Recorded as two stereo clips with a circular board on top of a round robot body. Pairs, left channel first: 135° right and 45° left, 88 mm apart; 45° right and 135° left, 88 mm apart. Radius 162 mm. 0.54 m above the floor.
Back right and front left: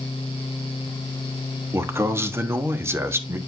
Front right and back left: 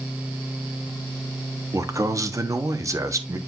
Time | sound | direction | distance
1.7 | a man speaking | 95° left | 1.3 m